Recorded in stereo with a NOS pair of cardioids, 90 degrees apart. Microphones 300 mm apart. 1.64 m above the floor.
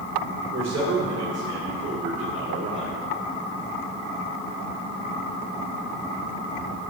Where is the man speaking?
60° right, 2.5 m; by 3.0 s 35° right, 1.0 m.